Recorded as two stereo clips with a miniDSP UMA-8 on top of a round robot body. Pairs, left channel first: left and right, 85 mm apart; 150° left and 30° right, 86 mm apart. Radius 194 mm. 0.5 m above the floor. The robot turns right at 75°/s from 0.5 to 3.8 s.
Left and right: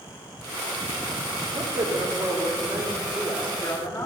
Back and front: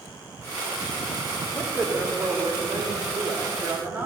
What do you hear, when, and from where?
1.5 s a man speaking: 135° right, 2.5 m; by 4.1 s 35° left, 2.5 m